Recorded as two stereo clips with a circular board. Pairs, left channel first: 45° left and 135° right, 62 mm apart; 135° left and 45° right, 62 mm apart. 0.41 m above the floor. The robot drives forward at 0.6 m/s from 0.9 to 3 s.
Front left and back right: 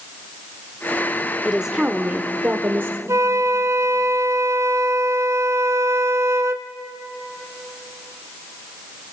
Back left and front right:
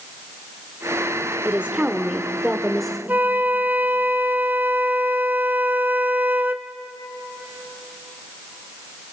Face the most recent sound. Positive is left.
turn(degrees=-100)